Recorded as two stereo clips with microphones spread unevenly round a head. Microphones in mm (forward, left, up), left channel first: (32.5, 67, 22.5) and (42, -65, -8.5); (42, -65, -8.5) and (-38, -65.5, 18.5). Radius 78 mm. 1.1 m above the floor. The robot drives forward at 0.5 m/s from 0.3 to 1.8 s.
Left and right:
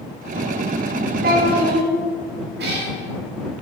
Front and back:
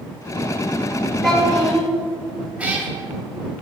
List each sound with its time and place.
1.2 s a child speaking: 85° right, 2.5 m; by 1.9 s 95° right, 2.5 m
2.6 s a cat meowing: 115° right, 1.4 m